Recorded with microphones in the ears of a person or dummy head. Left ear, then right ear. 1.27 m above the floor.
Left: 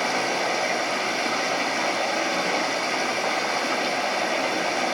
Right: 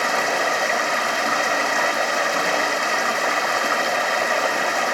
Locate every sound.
0.0 s running water: 50° right (ahead or behind), 1.5 m